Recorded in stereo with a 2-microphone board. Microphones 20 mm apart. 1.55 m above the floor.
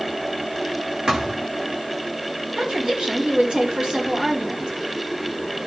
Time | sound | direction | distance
1.1 | a thud | 35° right (ahead or behind) | 2 m
2.6 | a woman speaking | 55° right (ahead or behind) | 4 m